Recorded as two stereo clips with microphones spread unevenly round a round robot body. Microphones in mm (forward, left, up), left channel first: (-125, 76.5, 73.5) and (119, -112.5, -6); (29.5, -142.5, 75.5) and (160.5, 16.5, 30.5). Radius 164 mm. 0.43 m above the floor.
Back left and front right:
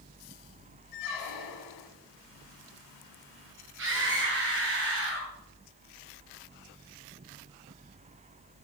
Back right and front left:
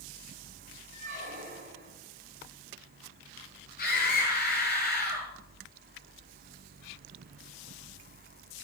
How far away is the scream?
About 7 m.